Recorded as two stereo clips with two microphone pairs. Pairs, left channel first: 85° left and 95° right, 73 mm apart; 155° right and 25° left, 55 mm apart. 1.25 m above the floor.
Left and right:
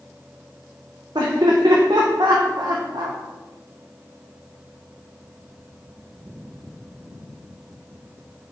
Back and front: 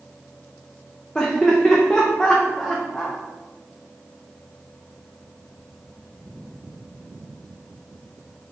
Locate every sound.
1.1 s laughter: 85° right, 0.6 m